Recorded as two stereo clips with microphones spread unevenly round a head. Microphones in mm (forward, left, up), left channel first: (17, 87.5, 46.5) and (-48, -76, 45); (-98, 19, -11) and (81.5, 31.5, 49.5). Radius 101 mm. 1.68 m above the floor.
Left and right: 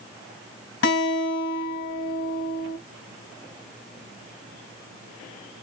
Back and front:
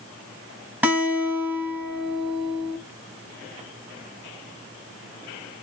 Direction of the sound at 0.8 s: 85° left.